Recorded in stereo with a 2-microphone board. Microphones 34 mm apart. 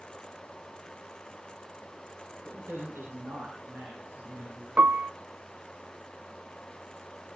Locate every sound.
2.5 s a man speaking: 80° right, 9.5 m
4.8 s a piano: 45° right (ahead or behind), 0.5 m